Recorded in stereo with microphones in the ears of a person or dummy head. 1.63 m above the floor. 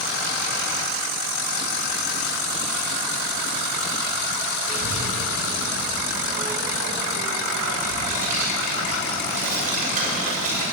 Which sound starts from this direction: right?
A child speaking, at 4.7 s.